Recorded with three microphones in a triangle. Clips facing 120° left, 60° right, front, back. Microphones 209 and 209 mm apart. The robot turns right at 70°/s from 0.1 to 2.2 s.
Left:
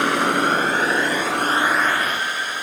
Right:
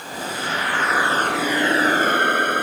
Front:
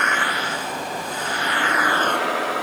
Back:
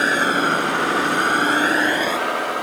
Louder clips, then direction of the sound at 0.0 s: Left 10 dB, back 7 dB; 125° left.